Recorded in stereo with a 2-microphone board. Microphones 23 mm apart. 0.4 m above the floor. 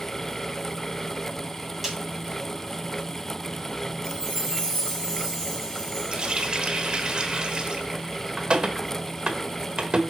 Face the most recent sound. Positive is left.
turn(degrees=-45)  # may be behind; listen again after turning